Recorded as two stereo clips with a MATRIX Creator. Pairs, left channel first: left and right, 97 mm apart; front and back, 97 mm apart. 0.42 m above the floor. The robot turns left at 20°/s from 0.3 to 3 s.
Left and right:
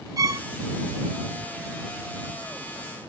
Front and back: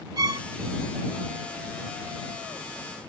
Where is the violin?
135° right; by 0.5 s 140° right.